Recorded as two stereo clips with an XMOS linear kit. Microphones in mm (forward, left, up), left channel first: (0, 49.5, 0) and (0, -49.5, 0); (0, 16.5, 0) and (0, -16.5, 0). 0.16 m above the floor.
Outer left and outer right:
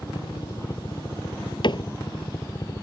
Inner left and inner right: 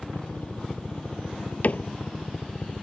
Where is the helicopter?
50° left (ahead or behind); by 2.8 s 40° left (ahead or behind).